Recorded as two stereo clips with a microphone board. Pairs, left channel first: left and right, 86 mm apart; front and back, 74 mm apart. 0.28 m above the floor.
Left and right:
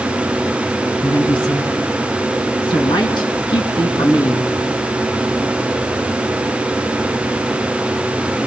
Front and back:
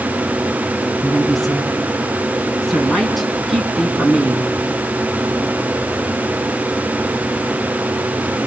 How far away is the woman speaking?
About 3 m.